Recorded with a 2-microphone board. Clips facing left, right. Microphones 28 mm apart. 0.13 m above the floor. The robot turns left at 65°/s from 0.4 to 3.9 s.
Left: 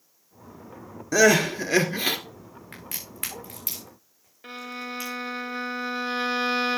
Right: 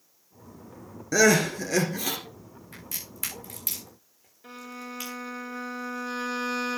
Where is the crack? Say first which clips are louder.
Left 1 dB; 75° left (ahead or behind), 7 m; by 5.2 s centre (ahead or behind), 7 m.